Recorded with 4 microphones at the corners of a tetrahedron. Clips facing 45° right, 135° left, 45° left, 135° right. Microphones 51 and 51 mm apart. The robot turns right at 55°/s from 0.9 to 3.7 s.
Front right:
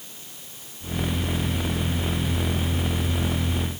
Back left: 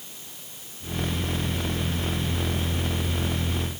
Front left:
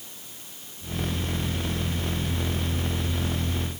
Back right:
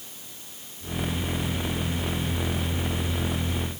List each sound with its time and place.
Only background noise.